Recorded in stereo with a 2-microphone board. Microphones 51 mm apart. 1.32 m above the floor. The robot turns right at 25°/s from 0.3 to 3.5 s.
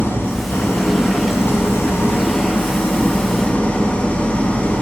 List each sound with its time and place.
0.0 s an engine running: 65° left, 0.8 m; by 4.8 s 145° left, 0.8 m